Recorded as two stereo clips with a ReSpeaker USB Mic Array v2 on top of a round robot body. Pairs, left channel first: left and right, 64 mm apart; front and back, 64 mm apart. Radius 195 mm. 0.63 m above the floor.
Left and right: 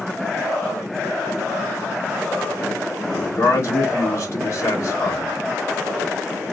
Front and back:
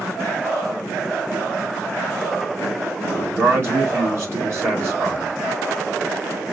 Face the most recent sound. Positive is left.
turn(degrees=135)